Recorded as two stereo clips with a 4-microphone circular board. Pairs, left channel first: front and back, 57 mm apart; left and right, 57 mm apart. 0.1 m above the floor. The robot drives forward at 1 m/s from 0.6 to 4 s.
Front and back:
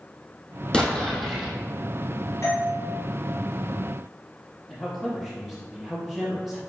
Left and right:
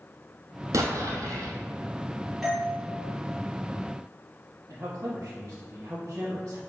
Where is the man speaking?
95° right, 3 m.